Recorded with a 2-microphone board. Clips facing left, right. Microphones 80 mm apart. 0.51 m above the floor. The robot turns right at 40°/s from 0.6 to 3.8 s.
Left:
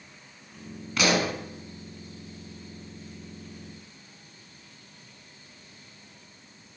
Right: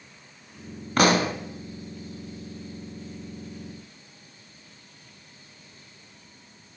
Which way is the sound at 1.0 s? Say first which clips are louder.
Right 4 dB; 50° right (ahead or behind).